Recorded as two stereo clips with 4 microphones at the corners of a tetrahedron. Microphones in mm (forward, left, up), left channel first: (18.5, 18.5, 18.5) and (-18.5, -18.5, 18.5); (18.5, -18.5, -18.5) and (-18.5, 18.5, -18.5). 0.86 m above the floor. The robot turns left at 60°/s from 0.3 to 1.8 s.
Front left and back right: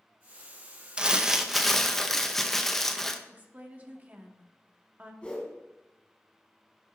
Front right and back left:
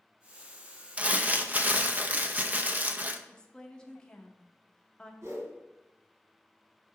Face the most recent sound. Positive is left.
turn(degrees=115)